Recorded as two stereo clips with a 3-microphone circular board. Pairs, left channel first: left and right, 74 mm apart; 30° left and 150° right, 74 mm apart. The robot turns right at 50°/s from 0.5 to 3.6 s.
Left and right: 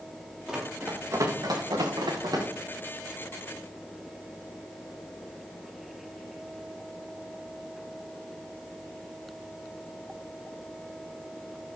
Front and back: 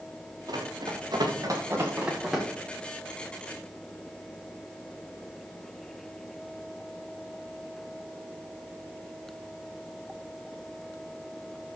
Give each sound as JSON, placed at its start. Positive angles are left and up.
{"t": 0.5, "sound": "running footsteps", "azimuth_deg": -170, "distance_m": 5.0}